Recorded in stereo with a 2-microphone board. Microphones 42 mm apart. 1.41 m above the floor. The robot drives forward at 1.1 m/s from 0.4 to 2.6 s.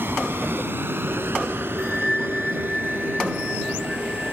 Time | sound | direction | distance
0.0 | a vehicle | 75° right (ahead or behind) | ?
1.8 | a bell | 10° left (ahead or behind) | ?